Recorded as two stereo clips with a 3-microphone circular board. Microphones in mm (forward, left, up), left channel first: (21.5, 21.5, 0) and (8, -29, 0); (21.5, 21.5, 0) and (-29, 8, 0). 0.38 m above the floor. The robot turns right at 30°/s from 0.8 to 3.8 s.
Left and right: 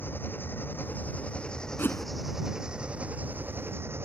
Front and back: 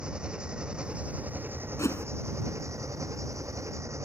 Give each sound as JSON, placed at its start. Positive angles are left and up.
{"t": 0.0, "sound": "an engine running", "azimuth_deg": 125}
{"t": 1.8, "sound": "a whoosh", "azimuth_deg": 25}